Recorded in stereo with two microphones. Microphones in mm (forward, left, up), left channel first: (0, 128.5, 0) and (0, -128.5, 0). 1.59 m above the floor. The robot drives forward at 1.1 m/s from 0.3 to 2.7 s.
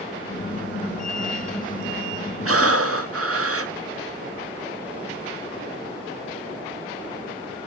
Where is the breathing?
65° right (ahead or behind), 0.8 m; by 3.7 s 70° right (ahead or behind), 0.8 m.